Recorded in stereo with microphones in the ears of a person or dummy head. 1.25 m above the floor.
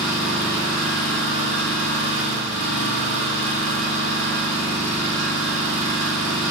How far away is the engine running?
About 6 m.